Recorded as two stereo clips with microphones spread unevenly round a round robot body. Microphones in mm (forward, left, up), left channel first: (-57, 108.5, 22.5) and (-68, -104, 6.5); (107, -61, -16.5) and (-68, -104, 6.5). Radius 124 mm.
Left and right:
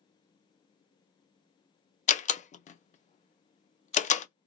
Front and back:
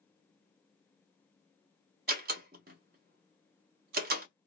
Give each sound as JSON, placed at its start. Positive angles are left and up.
{"t": 2.1, "sound": "a door slam", "azimuth_deg": 145, "distance_m": 0.5}